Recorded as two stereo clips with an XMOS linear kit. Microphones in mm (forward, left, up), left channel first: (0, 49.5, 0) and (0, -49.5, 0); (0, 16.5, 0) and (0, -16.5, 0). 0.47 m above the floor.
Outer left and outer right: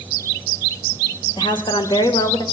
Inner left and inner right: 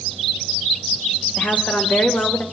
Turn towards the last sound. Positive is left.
turn(degrees=45)  # may be behind; listen again after turning